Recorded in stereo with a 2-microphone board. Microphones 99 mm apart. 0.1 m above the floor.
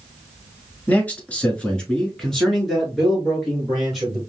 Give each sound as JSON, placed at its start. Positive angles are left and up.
{"t": 0.9, "sound": "a man speaking", "side_deg": 15, "distance_m": 1.1}